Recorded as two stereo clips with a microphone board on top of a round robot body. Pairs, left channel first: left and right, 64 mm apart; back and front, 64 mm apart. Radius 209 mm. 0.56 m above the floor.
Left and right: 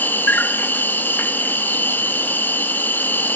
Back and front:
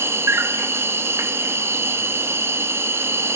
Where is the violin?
No violin in this recording.